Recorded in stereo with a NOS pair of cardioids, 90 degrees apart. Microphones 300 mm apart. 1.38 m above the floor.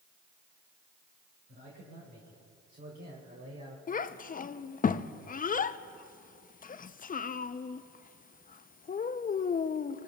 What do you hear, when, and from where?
1.5 s a man speaking: 40° right, 4 m; by 3.8 s 25° right, 2 m
3.9 s a child speaking: 30° left, 0.6 m